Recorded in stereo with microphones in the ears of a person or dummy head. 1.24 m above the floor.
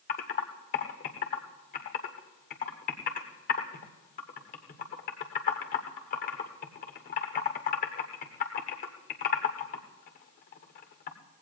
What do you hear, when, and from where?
0.1 s typing on a keyboard: 45° left (ahead or behind), 1.1 m